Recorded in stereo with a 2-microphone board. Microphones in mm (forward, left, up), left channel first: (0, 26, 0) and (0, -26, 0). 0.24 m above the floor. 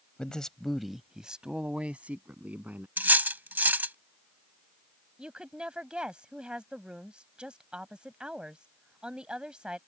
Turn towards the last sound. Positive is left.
turn(degrees=-20)  # may be behind; listen again after turning